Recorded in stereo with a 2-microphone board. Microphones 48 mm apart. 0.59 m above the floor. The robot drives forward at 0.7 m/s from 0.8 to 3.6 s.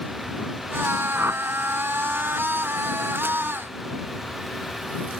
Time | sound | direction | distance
1.1 | a whoosh | 60° right (ahead or behind) | ?